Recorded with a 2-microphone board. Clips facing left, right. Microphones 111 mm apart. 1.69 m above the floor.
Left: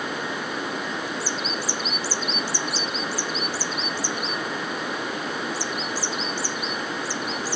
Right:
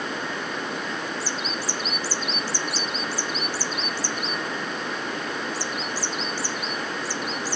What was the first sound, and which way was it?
Only background noise.